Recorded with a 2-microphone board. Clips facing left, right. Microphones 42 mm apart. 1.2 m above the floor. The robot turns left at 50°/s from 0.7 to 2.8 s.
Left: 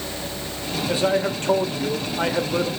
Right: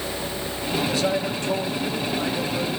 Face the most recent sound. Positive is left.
turn(degrees=60)